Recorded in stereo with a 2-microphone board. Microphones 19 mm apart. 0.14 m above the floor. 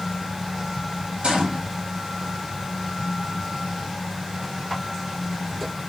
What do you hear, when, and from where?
1.2 s a gunshot: 75° right (ahead or behind), 0.9 m